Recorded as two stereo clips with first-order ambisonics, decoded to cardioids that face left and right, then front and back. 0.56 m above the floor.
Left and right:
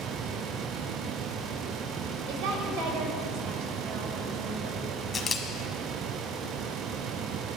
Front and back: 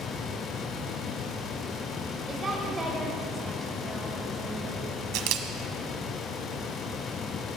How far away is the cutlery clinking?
I don't hear cutlery clinking.